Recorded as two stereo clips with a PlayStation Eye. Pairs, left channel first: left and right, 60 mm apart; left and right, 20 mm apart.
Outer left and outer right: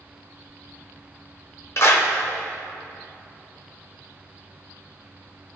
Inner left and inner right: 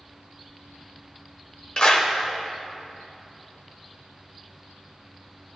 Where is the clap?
50° left (ahead or behind), 1.0 m.